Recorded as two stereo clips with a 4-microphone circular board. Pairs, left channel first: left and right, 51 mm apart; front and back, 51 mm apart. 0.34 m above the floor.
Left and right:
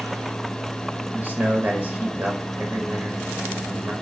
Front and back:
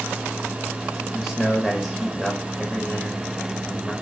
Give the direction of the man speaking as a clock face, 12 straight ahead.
3 o'clock.